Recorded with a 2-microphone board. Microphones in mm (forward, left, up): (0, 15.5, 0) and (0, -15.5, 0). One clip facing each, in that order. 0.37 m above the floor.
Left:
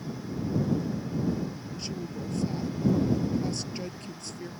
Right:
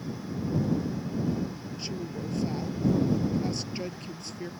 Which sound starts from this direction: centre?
A woman speaking, at 1.8 s.